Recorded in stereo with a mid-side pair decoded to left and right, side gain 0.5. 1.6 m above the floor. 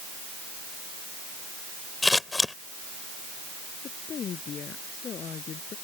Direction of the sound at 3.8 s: 50° left.